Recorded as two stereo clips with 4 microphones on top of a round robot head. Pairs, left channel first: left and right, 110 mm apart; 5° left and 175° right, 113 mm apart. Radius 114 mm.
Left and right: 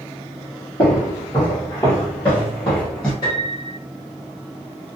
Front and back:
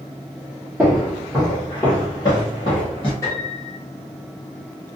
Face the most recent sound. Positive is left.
turn(degrees=60)